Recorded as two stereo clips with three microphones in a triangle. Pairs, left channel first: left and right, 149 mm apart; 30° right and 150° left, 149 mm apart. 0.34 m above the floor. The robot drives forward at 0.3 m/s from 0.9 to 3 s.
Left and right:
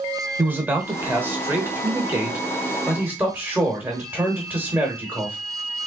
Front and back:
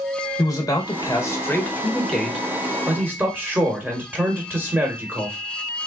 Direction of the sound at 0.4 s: 35° right.